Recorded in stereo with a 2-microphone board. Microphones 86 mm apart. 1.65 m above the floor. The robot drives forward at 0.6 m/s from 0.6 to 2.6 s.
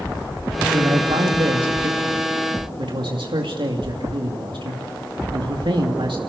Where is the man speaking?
70° right (ahead or behind), 2.5 m.